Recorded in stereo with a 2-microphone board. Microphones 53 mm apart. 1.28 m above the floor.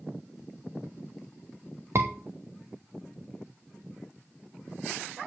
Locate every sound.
1.9 s a scream: 60° right (ahead or behind), 1.0 m